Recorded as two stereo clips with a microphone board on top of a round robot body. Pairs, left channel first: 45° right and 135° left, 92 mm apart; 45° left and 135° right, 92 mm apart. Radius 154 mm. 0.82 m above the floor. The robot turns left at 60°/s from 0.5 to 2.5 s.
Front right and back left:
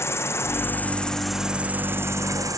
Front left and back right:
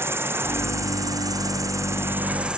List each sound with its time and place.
0.0 s an insect: 90° right, 1.0 m; by 2.6 s 150° left, 1.0 m